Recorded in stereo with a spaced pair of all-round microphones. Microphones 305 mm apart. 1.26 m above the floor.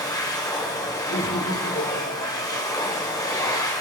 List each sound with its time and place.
0.0 s a machine running: 15° left (ahead or behind), 1.2 m
1.1 s laughter: 85° left, 3.5 m